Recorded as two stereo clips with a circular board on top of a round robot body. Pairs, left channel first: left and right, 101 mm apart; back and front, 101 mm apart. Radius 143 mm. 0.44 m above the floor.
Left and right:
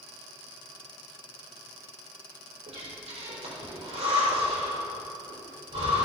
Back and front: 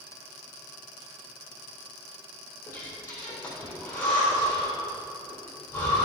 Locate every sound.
2.7 s breathing: 110° right, 4 m